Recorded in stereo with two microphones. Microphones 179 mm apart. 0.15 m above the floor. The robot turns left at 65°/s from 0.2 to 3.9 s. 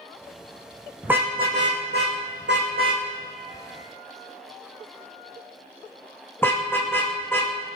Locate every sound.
1.0 s a car horn: 5° right (ahead or behind), 5 m; by 7.5 s 10° left (ahead or behind), 5 m